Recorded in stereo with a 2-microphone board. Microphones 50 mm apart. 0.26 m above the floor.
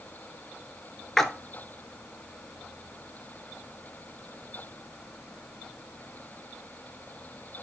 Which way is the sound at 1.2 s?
10° left (ahead or behind).